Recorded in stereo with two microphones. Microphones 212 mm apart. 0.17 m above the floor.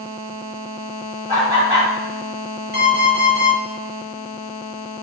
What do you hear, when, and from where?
1.3 s laughter: 15° right (ahead or behind), 1.3 m
2.7 s an alarm clock: 55° right (ahead or behind), 1.5 m